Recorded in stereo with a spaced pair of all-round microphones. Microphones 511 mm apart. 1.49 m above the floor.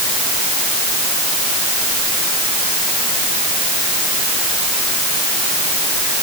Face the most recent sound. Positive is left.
No sound to turn to.